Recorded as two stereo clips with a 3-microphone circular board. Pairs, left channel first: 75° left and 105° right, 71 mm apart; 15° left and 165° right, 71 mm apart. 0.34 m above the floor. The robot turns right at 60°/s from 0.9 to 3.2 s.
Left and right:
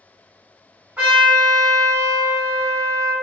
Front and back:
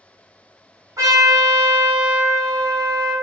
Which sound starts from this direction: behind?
A trumpet, at 1.0 s.